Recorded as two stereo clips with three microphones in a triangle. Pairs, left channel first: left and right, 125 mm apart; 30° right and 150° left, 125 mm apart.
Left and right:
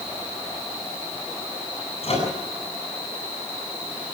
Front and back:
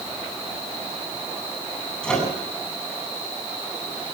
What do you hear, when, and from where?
2.0 s a microwave: 55° left, 8.5 m